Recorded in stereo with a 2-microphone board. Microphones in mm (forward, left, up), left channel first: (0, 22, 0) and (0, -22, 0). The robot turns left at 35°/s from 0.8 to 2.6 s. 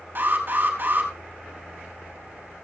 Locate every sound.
0.1 s an alarm: 60° right (ahead or behind), 4 m; by 1.1 s 55° right (ahead or behind), 4 m